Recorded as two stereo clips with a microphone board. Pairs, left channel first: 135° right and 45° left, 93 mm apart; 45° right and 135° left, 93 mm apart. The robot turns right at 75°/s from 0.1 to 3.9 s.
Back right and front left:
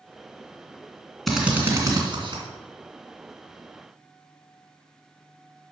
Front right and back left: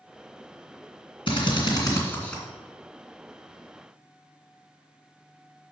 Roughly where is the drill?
Ahead right.